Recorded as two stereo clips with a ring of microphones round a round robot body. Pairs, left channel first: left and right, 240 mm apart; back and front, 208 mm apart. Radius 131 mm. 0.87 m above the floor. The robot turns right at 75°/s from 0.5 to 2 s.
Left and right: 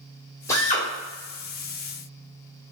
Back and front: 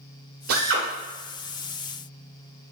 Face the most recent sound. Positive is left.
turn(degrees=125)